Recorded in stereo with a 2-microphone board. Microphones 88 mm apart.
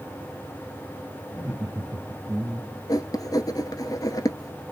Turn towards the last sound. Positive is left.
turn(degrees=50)  # may be behind; listen again after turning